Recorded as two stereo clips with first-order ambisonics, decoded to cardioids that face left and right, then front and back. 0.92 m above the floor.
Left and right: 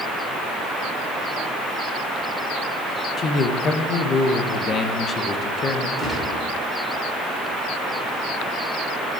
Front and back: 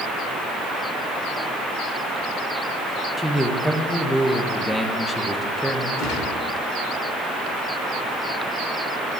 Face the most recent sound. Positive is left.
turn(degrees=0)